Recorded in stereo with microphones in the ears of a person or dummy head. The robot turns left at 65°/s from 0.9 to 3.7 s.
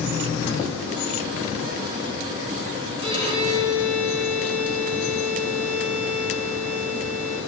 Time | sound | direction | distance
3.0 | a violin | 25° right | 4 m